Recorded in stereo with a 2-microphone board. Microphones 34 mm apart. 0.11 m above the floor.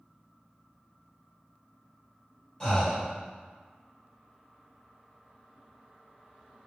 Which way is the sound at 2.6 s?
20° left (ahead or behind).